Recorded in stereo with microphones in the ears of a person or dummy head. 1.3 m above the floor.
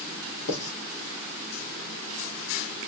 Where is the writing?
60° left (ahead or behind), 1.4 m.